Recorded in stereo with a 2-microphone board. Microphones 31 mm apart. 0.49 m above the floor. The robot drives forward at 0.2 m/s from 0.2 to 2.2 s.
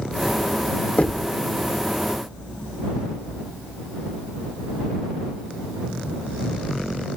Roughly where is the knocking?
Left.